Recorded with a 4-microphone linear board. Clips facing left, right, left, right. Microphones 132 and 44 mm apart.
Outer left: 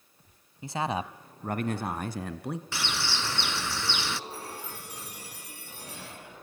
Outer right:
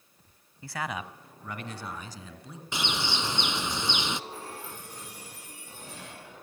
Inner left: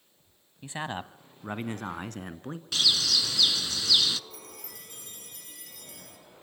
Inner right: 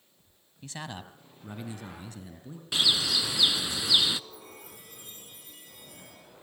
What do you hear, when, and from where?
0.6 s a man speaking: 20° left (ahead or behind), 1.4 m; by 2.6 s 65° left (ahead or behind), 2.5 m
2.7 s a bird: 20° right (ahead or behind), 0.6 m
4.3 s a chime: 80° left, 8 m